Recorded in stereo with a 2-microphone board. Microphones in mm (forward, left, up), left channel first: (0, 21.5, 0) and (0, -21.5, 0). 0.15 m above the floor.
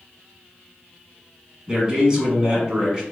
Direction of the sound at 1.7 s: 20° right (ahead or behind).